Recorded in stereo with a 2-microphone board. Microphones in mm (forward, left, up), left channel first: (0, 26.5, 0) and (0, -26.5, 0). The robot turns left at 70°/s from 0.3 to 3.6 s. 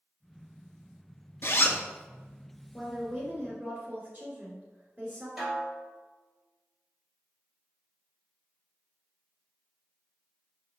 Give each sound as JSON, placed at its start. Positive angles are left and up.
{"t": 1.4, "sound": "a zipper", "side_deg": 50, "distance_m": 0.6}
{"t": 2.7, "sound": "a woman speaking", "azimuth_deg": 5, "distance_m": 2.0}
{"t": 5.4, "sound": "a snare drum", "side_deg": 0, "distance_m": 2.0}